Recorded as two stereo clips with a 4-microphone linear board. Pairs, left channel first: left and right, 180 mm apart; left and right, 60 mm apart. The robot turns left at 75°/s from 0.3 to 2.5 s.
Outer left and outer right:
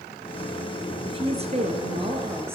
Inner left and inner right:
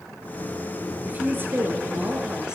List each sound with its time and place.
1.1 s a woman speaking: 50° right, 1.3 m; by 2.5 s 155° right, 1.3 m